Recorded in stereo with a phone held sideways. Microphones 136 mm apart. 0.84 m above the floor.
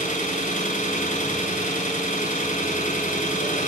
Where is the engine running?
75° left (ahead or behind), 4.5 m.